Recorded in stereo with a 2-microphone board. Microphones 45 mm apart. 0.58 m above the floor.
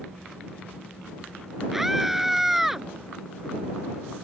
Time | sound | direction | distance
1.7 | a scream | 5° right (ahead or behind) | ?